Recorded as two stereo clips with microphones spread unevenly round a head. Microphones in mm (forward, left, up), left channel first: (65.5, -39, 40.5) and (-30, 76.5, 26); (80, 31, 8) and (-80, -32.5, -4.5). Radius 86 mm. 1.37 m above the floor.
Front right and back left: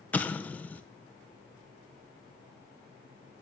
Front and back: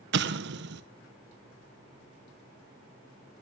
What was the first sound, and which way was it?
An explosion, 130° right.